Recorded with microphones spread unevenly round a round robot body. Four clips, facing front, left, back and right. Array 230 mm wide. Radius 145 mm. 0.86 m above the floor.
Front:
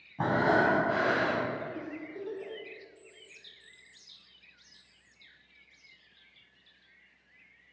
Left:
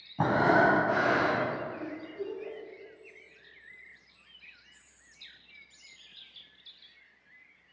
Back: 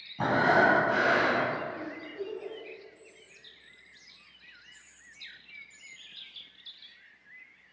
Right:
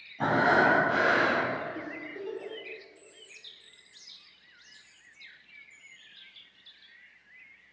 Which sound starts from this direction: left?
Breathing, at 0.2 s.